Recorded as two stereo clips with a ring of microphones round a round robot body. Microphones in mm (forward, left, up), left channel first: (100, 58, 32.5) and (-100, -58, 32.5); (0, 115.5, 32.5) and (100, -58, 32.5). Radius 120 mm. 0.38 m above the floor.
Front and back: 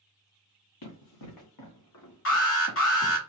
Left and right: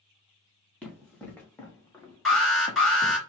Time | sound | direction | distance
0.8 | running footsteps | 35° left | 3 m
2.2 | an alarm | 30° left | 3.5 m